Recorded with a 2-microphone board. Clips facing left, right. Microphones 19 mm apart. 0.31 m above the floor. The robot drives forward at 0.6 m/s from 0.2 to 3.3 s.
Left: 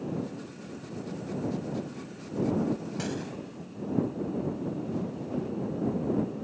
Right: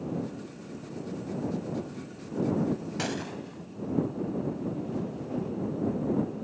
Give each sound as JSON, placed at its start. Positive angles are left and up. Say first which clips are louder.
{"t": 3.0, "sound": "a gunshot", "louder": "right 1 dB", "side_deg": -25}